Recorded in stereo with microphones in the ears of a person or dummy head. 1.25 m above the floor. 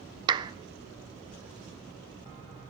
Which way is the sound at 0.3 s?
25° right (ahead or behind).